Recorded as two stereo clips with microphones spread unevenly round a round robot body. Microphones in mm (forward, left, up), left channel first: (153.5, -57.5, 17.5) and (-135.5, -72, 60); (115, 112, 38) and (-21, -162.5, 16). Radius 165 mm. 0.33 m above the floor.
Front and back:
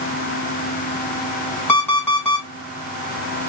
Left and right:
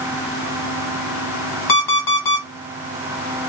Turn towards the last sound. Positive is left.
turn(degrees=85)